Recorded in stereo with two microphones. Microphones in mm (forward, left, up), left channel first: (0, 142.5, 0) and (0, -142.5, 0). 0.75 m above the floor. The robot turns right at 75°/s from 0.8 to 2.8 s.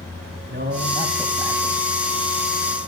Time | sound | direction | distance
0.5 | a man speaking | 35° right | 4.5 m